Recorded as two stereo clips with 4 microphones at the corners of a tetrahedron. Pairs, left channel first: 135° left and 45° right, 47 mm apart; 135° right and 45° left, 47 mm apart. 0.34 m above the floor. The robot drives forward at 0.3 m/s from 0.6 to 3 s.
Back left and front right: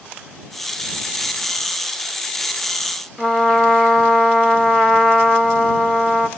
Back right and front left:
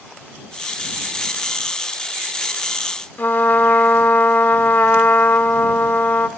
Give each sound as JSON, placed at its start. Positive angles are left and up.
{"t": 3.2, "sound": "a trumpet", "azimuth_deg": -150, "distance_m": 1.4}